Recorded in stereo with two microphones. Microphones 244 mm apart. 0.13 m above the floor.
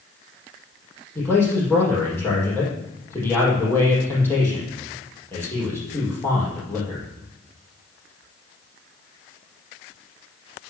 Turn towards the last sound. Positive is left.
turn(degrees=10)  # may be behind; listen again after turning